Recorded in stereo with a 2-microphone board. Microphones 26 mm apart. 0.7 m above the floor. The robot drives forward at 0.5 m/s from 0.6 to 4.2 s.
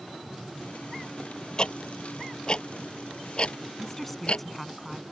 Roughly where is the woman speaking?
Centre.